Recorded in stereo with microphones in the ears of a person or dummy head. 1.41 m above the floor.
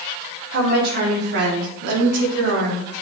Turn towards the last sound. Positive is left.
turn(degrees=-75)  # may be behind; listen again after turning